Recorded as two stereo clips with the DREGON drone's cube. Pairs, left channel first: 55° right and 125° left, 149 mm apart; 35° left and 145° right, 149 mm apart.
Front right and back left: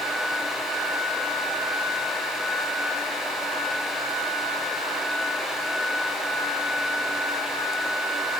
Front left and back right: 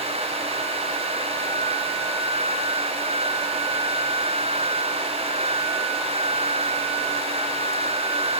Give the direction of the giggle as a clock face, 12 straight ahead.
I don't hear a giggle.